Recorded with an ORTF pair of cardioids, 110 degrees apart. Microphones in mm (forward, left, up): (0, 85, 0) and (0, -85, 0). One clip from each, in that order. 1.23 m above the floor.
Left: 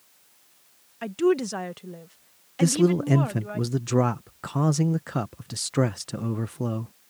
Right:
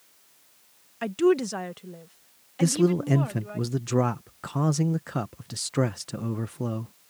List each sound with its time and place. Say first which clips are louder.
1.0 s a woman speaking: right 1 dB; 15° right; by 3.6 s 25° left
2.6 s a man speaking: left 2 dB; 10° left